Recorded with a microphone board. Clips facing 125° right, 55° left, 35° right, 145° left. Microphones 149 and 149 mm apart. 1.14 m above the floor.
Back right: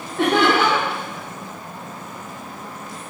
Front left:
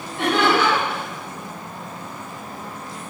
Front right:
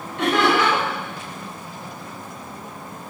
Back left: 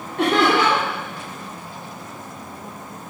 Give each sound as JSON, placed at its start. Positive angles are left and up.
{"t": 0.2, "sound": "laughter", "azimuth_deg": -170, "distance_m": 3.0}